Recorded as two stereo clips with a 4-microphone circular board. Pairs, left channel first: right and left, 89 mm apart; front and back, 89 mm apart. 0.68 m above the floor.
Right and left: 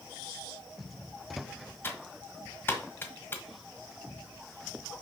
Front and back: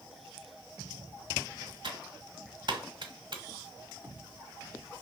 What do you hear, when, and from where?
1.8 s typing on a keyboard: 155° right, 1.4 m